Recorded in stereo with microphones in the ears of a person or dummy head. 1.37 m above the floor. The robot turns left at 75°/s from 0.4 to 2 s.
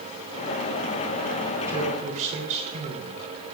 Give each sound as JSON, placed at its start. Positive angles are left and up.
{"t": 1.7, "sound": "a man speaking", "side_deg": -10, "distance_m": 3.5}